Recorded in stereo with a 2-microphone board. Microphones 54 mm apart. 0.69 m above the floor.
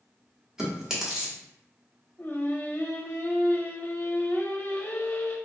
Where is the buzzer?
I don't hear a buzzer.